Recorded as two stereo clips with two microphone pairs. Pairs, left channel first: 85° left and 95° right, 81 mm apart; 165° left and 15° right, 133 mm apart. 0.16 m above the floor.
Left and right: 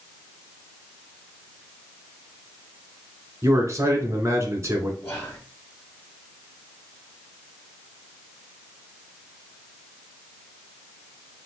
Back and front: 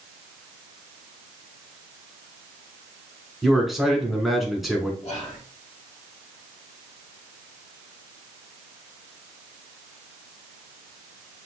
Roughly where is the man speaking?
Right.